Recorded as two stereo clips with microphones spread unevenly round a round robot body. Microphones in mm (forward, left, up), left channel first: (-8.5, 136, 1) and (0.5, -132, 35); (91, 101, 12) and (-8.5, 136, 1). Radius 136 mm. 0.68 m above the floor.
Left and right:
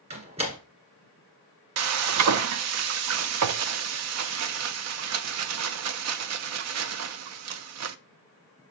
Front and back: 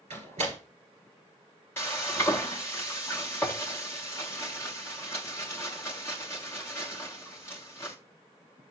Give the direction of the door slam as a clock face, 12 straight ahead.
5 o'clock.